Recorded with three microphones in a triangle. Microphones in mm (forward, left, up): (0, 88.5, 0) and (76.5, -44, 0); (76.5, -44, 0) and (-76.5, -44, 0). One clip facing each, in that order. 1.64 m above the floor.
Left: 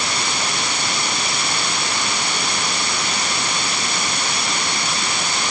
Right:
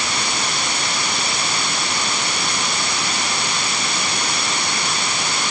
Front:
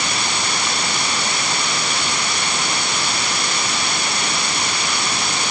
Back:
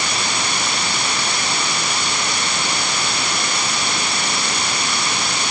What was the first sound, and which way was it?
Only background noise.